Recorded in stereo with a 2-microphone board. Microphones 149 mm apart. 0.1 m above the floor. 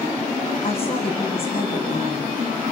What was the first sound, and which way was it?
A woman speaking, 40° left (ahead or behind).